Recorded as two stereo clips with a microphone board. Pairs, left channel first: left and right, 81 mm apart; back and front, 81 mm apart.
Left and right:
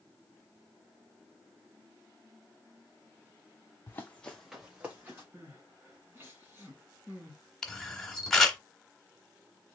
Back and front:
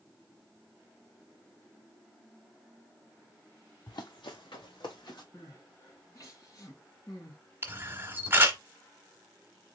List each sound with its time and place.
3.9 s running footsteps: 145° left, 1.0 m; by 5.2 s 160° right, 2 m
5.3 s crying: 150° right, 1.9 m
7.6 s a camera shutter: 15° left, 1.0 m